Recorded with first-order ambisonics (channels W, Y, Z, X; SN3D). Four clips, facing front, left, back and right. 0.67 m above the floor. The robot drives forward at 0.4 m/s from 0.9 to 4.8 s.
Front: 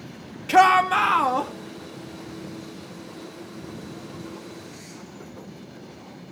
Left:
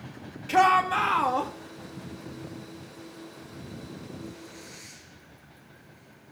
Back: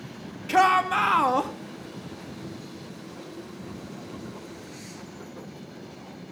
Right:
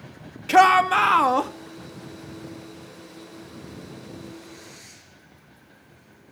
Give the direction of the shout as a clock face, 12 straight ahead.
2 o'clock.